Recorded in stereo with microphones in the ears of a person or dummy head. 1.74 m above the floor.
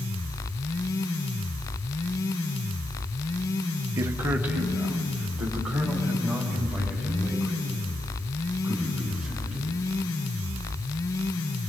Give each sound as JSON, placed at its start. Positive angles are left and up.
{"t": 4.0, "sound": "a man speaking", "side_deg": -20, "distance_m": 1.3}